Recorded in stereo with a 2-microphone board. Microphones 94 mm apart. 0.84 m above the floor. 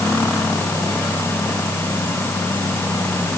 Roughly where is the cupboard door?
I don't hear a cupboard door.